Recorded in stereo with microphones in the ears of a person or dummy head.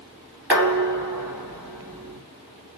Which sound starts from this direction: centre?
Dishes clattering, at 0.5 s.